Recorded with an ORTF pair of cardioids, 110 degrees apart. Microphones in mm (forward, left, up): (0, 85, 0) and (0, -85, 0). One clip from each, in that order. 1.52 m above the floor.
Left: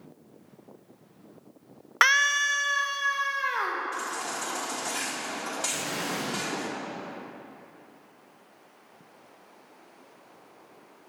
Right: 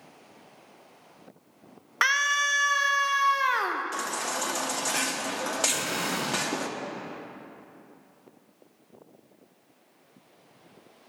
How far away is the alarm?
I don't hear an alarm.